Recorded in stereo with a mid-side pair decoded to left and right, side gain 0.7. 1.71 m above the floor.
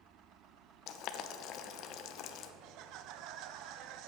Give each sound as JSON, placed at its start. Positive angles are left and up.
{"t": 0.9, "sound": "boiling", "azimuth_deg": 55, "distance_m": 0.9}
{"t": 2.6, "sound": "laughter", "azimuth_deg": -60, "distance_m": 1.0}